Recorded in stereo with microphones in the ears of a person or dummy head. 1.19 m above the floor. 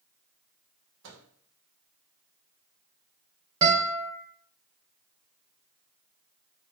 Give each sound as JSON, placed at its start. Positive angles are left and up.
{"t": 1.0, "sound": "a microwave", "side_deg": -75, "distance_m": 1.2}
{"t": 3.6, "sound": "a guitar", "side_deg": -25, "distance_m": 1.4}